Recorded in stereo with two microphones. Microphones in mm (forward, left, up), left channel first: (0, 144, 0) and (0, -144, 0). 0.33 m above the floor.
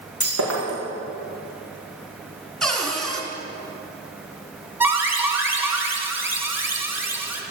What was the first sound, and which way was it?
Breaking glass, 75° left (ahead or behind).